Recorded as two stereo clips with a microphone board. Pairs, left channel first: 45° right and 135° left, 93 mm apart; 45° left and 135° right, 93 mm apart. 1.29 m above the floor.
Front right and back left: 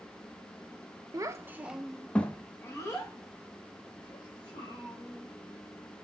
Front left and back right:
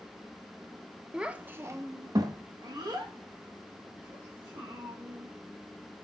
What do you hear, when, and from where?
1.1 s a child speaking: 150° left, 0.5 m; by 6.0 s 85° right, 2.5 m